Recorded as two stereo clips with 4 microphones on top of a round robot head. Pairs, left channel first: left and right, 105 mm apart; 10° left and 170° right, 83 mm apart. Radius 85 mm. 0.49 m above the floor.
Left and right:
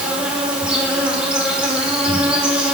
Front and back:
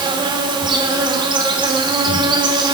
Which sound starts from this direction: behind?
An insect, at 0.0 s.